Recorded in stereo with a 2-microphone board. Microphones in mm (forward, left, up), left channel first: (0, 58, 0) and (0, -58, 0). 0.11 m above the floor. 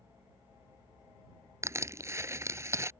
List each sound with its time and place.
1.6 s crushing: 25° right (ahead or behind)